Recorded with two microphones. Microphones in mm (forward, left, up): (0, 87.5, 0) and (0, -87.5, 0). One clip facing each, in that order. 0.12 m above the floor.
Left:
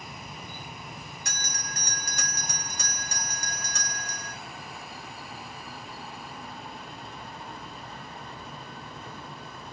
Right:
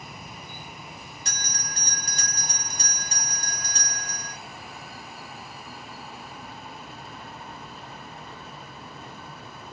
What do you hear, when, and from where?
1.2 s a bell: 30° right (ahead or behind), 1.5 m